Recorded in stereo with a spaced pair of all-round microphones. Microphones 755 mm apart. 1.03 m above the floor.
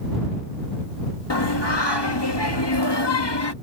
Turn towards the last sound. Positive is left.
turn(degrees=35)  # may be behind; listen again after turning